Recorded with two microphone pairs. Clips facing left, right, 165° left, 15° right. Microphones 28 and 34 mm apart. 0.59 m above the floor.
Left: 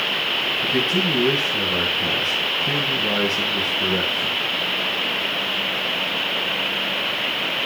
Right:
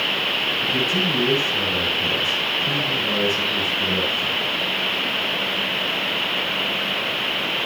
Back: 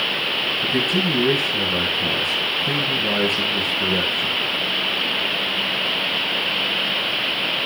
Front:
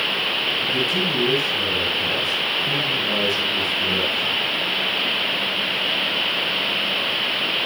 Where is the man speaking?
140° left, 6.5 m.